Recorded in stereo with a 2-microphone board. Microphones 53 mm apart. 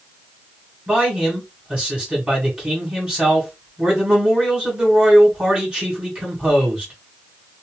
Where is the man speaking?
20° right (ahead or behind), 1.8 m.